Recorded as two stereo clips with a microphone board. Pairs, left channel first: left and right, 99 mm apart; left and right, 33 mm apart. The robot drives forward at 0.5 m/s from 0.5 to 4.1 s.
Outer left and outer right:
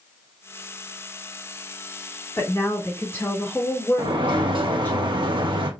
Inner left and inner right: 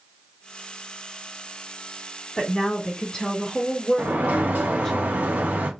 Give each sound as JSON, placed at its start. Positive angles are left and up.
{"t": 2.4, "sound": "a woman speaking", "side_deg": 25, "distance_m": 1.8}
{"t": 4.0, "sound": "a sliding door", "side_deg": -55, "distance_m": 1.1}